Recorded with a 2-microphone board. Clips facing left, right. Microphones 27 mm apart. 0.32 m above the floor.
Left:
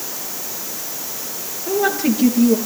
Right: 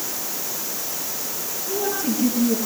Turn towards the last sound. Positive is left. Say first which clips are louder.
# left 7 dB
turn(degrees=80)